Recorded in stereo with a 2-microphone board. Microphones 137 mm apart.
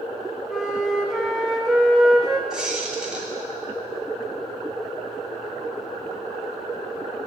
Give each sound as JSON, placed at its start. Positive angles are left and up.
{"t": 0.5, "sound": "a flute", "side_deg": -5, "distance_m": 0.9}
{"t": 2.5, "sound": "a squeak", "side_deg": -5, "distance_m": 1.7}